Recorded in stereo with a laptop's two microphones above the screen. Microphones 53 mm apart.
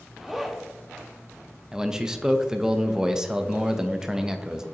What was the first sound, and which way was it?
A zipper, 5° right (ahead or behind).